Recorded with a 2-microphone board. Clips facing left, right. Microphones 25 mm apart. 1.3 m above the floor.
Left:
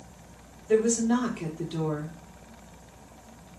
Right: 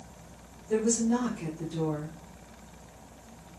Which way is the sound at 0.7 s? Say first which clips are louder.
Left 3 dB; 75° left (ahead or behind).